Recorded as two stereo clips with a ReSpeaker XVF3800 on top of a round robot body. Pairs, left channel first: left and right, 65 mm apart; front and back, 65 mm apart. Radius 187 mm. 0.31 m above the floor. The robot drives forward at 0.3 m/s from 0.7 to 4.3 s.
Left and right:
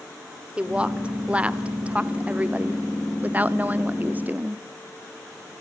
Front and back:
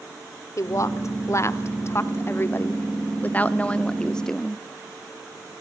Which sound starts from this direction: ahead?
A woman speaking, at 0.6 s.